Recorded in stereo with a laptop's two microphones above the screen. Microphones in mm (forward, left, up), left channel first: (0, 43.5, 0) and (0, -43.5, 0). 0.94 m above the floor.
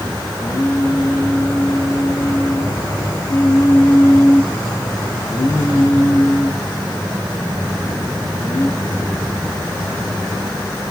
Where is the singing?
55° left (ahead or behind), 6 m.